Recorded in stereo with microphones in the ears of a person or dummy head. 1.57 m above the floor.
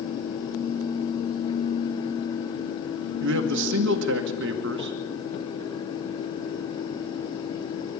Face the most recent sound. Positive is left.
turn(degrees=-65)  # may be behind; listen again after turning